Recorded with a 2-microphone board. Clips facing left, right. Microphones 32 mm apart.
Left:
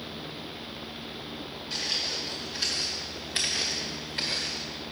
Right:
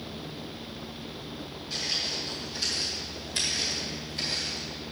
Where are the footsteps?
20° left (ahead or behind), 3.5 m; by 4.7 s 50° left (ahead or behind), 2 m.